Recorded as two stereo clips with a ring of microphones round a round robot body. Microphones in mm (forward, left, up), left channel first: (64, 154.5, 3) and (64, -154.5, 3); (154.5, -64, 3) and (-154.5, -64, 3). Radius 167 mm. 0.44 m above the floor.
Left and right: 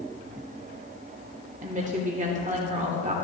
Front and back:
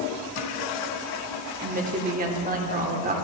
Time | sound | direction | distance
1.6 | a woman speaking | 140° right | 1.1 m